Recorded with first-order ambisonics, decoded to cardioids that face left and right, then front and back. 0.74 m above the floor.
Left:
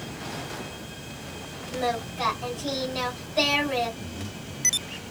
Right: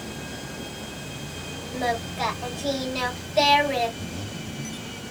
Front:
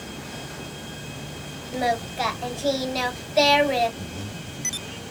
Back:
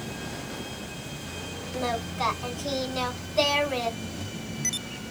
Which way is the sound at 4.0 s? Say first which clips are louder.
Right 3 dB, front 1 dB; 45° right.